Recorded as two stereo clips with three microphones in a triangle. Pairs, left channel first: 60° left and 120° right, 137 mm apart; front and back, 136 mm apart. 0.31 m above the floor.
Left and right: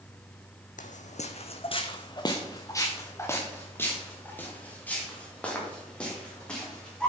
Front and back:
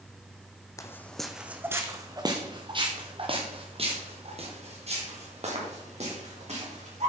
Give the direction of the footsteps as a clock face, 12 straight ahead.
10 o'clock.